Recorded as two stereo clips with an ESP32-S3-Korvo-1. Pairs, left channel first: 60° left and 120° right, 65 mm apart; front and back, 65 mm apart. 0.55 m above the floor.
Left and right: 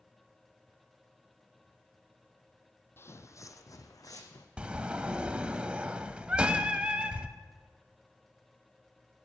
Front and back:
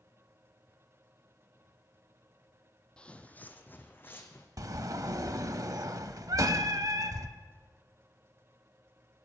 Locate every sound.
3.0 s footsteps: 65° left, 0.7 m; by 4.5 s 50° left, 1.6 m
4.6 s a sliding door: 170° left, 0.6 m
6.3 s singing: 170° left, 1.0 m